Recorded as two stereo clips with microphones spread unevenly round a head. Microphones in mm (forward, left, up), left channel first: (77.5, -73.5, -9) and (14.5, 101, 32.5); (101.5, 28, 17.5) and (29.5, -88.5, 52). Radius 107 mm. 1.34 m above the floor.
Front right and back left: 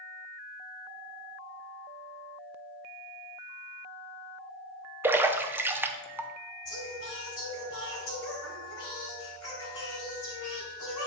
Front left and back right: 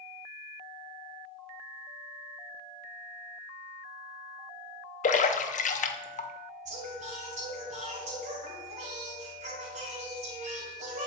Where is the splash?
30° left, 0.7 m.